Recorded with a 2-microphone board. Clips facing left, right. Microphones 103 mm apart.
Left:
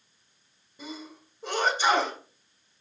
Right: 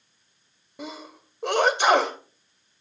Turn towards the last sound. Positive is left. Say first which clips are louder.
# right 3 dB
turn(degrees=-70)  # may be behind; listen again after turning